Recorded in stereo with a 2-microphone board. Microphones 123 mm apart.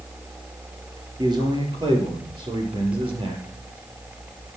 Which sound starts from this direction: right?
A man speaking, at 1.2 s.